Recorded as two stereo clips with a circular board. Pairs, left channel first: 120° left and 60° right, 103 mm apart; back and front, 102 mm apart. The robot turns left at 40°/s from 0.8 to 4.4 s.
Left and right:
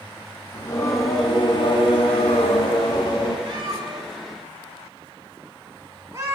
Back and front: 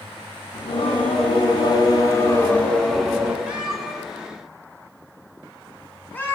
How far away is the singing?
About 0.7 m.